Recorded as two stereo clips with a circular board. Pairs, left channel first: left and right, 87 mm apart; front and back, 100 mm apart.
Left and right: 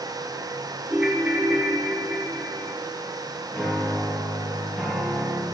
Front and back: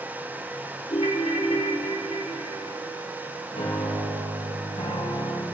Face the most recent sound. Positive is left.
turn(degrees=10)